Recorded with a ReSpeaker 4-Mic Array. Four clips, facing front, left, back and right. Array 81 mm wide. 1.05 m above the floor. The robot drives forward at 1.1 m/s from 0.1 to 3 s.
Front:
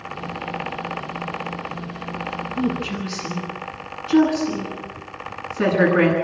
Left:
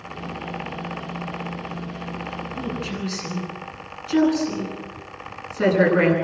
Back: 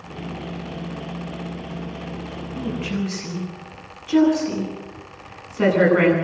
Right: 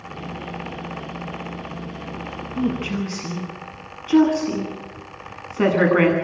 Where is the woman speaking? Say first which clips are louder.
Right 8 dB, front 1 dB; 95° right, 9.5 m.